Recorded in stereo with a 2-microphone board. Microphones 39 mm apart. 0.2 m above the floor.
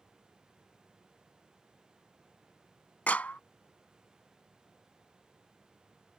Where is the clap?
40° left (ahead or behind).